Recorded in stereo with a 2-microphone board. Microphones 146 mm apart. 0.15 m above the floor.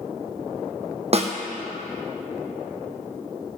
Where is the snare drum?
45° right (ahead or behind), 1.3 m.